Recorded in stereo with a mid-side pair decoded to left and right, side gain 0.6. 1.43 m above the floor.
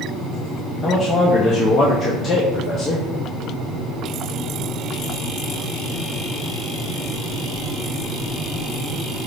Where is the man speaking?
35° left, 0.6 m.